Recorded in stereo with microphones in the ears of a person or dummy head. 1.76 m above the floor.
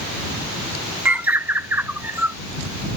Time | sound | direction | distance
1.1 | a bird | 5° right (ahead or behind) | ?